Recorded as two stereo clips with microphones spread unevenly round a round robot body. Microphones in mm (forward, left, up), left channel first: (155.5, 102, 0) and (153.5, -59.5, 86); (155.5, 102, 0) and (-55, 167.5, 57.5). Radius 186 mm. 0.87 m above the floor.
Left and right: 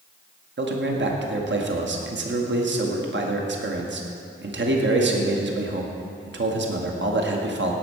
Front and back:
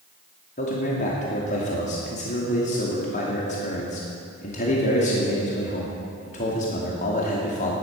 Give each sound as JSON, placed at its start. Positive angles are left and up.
{"t": 0.6, "sound": "a man speaking", "azimuth_deg": -70, "distance_m": 2.0}